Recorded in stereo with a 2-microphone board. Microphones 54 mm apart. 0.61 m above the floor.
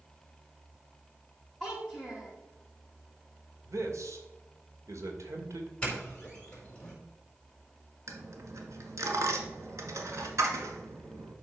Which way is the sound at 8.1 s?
70° right (ahead or behind).